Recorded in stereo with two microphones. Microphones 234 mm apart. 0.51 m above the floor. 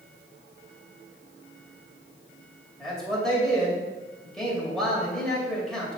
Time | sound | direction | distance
2.8 | a man speaking | centre (ahead or behind) | 2.5 m